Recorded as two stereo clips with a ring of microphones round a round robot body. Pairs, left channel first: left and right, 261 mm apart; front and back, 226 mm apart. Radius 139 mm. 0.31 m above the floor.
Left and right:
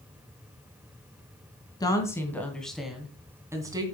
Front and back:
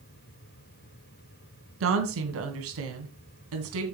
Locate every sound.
1.8 s a woman speaking: 165° left, 3 m; by 3.8 s 165° right, 3 m